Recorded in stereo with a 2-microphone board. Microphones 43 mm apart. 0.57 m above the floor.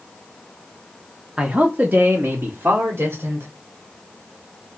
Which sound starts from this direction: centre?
A man speaking, at 1.4 s.